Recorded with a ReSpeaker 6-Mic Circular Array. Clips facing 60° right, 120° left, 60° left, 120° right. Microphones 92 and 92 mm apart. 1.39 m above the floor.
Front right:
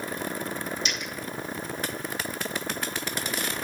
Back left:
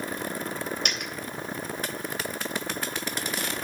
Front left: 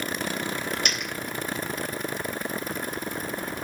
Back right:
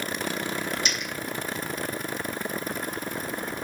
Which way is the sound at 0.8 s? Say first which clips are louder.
Even, front left 1 dB; 90° left.